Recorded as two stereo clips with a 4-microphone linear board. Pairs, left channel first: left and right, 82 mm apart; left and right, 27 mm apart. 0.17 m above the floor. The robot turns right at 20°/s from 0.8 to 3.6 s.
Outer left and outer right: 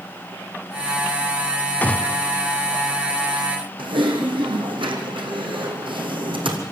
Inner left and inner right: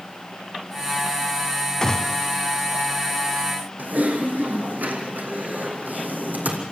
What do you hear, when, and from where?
1.8 s a gunshot: 20° left (ahead or behind), 0.7 m
3.8 s typing on a keyboard: 80° right, 3 m